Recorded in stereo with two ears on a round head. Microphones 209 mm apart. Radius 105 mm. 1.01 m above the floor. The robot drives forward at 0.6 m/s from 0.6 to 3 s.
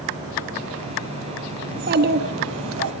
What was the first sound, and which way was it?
A child speaking, 35° right (ahead or behind).